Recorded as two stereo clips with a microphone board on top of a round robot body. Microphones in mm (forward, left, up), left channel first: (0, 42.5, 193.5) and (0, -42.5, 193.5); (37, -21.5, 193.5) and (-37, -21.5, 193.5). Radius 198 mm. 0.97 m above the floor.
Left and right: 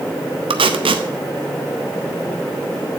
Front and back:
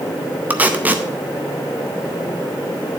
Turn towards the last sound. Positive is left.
turn(degrees=-110)